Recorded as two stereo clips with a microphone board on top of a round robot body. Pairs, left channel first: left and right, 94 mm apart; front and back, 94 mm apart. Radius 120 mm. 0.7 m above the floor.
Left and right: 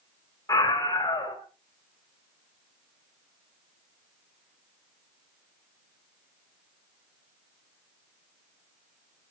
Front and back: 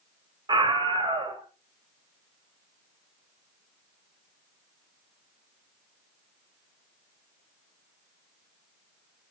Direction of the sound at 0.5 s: 145° left.